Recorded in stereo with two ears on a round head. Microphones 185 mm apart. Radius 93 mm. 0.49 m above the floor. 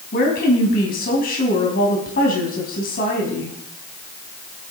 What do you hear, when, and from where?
0.1 s a woman speaking: 45° left (ahead or behind), 4 m